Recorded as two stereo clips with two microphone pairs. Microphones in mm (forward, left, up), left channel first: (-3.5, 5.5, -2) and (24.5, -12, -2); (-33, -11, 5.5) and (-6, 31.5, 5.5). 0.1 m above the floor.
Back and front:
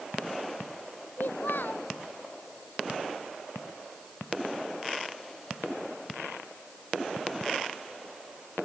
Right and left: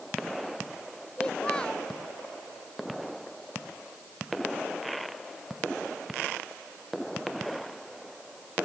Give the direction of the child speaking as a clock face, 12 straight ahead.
6 o'clock.